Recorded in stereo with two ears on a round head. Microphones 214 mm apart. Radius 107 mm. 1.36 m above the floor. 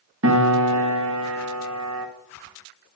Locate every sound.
0.2 s a piano: 55° right (ahead or behind), 1.2 m